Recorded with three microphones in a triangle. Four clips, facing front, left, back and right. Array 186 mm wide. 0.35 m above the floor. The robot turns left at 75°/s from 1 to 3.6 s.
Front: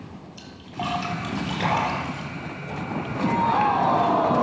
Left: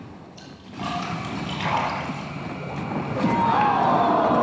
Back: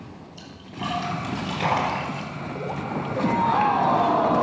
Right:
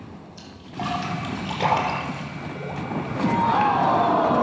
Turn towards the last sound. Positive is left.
turn(degrees=125)